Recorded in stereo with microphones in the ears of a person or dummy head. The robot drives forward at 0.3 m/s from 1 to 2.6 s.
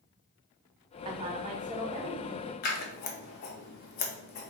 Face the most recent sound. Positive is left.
turn(degrees=50)  # may be behind; listen again after turning